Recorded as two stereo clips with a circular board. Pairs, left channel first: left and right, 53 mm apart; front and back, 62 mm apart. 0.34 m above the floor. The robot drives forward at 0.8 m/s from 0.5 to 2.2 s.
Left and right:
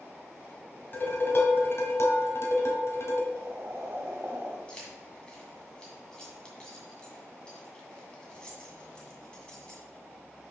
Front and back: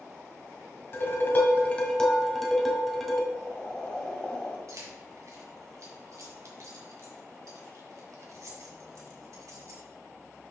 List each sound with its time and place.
0.9 s dishes clattering: 40° left, 1.6 m; by 3.2 s 85° left, 1.2 m
3.3 s boiling: 65° right, 1.7 m
4.7 s keys jangling: 160° left, 1.8 m